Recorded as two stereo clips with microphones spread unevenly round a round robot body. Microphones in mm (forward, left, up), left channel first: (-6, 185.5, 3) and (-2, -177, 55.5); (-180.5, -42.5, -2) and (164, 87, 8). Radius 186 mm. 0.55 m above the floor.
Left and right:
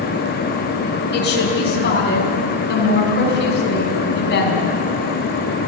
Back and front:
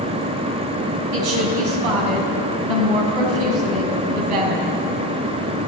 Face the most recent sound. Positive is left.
turn(degrees=25)